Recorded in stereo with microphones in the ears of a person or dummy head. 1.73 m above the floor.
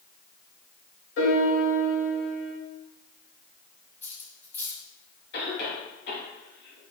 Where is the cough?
70° left (ahead or behind), 3 m.